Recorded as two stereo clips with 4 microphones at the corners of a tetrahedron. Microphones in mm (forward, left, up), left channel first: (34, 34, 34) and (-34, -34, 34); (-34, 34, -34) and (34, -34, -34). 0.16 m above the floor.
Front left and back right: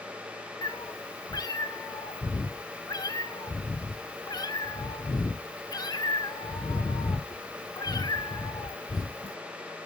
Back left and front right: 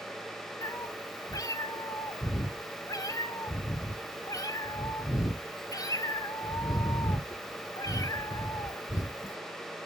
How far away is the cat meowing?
About 0.8 m.